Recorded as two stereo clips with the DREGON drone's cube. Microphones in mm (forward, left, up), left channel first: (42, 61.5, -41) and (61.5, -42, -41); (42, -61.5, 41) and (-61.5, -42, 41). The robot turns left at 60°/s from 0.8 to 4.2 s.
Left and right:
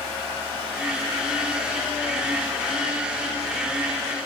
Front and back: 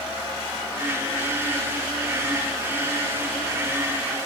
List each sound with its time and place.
Only background noise.